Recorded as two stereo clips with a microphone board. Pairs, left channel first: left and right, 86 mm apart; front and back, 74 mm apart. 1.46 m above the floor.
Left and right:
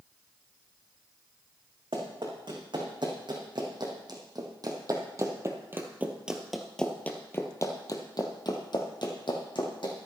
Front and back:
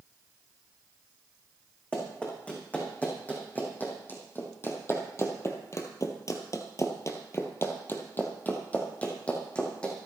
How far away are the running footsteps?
About 6 m.